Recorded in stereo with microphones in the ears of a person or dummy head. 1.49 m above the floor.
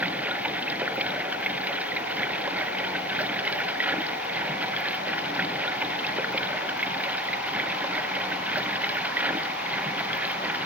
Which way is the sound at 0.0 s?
5° right (ahead or behind).